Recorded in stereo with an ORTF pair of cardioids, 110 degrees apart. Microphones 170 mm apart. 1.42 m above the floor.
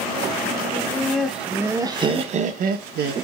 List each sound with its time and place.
0.7 s laughter: 5° left, 1.2 m; by 3.1 s 75° right, 0.8 m